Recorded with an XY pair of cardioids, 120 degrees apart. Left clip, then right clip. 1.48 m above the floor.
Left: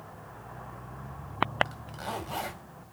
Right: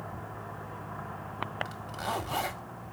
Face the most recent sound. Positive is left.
turn(degrees=-15)